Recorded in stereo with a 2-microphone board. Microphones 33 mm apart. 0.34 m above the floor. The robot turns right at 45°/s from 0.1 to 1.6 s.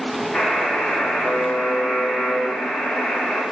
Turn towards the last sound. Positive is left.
turn(degrees=90)